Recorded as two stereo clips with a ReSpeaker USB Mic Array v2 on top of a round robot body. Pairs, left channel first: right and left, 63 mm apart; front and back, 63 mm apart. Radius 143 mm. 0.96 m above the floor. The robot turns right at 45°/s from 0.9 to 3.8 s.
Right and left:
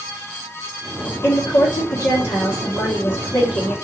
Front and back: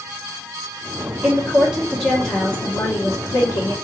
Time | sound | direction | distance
1.2 | a woman speaking | 115° right | 1.3 m